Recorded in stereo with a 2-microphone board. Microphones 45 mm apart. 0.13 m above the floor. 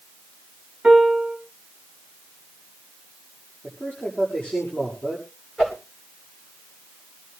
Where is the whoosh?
15° left (ahead or behind), 10 m.